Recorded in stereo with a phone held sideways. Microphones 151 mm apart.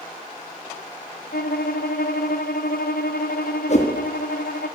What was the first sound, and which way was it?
A violin, 75° left (ahead or behind).